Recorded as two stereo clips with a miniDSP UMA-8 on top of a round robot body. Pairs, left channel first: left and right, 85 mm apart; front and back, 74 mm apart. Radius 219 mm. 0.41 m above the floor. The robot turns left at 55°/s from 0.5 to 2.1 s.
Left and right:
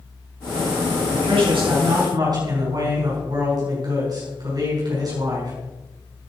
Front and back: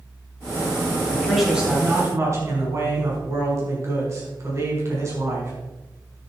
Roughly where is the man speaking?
Right.